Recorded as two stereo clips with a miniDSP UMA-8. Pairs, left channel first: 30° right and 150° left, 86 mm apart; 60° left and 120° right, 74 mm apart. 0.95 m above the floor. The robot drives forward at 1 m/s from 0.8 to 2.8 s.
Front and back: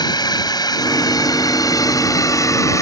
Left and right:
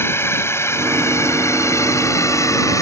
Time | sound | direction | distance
0.0 | a drone | 5° left | ?